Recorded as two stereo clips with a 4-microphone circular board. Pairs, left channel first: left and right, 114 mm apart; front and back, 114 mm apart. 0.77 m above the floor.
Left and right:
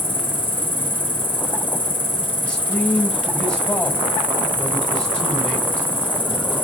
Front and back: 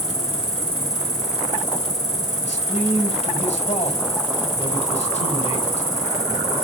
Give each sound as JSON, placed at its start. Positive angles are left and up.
{"t": 0.0, "sound": "an insect", "azimuth_deg": 15, "distance_m": 2.5}
{"t": 2.4, "sound": "a man speaking", "azimuth_deg": 10, "distance_m": 4.0}